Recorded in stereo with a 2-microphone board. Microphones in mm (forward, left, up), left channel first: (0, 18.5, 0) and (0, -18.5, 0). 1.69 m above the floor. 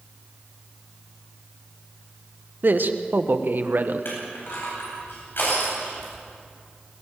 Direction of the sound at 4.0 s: 70° left (ahead or behind).